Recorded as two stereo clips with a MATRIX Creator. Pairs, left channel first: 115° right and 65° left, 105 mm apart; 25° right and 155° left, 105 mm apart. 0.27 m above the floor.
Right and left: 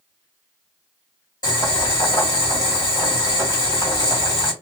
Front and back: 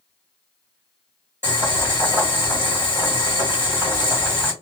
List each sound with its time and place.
1.4 s boiling: 145° right, 2.5 m